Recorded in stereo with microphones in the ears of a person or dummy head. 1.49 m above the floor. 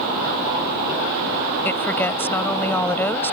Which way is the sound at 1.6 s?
10° left (ahead or behind).